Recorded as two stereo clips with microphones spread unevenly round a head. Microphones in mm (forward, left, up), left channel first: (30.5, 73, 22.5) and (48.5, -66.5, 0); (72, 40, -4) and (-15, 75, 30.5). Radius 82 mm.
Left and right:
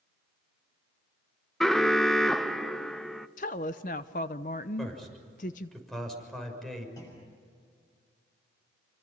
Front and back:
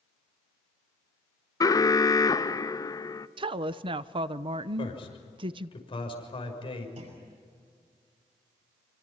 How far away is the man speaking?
About 6.5 m.